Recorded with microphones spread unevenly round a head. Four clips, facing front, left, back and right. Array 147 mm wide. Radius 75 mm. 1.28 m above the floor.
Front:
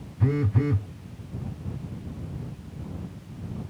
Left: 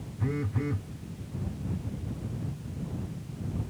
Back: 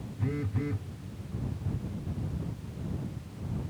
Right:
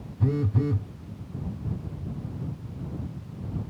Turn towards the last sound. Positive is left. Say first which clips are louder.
# right 5 dB, front 8 dB
turn(degrees=-30)